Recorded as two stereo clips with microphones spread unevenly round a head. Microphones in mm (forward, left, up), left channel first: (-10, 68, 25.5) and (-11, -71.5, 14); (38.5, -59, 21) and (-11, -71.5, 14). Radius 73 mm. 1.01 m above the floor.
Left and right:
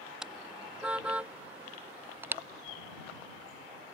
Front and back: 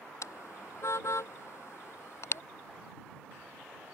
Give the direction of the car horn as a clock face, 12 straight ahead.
12 o'clock.